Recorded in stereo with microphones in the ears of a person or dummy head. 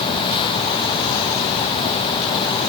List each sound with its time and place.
Only background noise.